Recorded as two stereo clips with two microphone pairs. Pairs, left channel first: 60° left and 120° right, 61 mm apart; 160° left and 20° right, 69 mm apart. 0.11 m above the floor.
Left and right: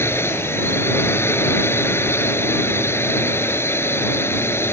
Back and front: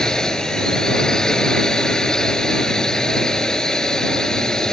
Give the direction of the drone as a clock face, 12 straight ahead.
9 o'clock.